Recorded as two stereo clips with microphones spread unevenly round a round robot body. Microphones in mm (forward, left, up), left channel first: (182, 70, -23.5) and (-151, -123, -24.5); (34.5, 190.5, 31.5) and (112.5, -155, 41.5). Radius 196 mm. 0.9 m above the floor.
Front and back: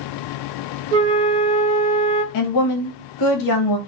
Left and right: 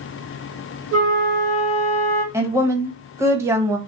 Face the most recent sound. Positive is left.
turn(degrees=5)